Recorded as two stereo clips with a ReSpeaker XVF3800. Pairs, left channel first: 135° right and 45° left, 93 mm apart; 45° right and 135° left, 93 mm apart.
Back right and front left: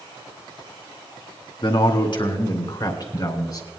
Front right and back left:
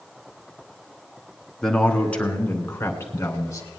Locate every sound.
1.6 s a man speaking: 130° right, 2.5 m; by 3.7 s 95° right, 2.5 m